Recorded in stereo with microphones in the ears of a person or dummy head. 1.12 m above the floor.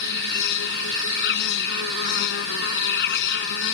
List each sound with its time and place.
0.0 s an insect: 60° left (ahead or behind)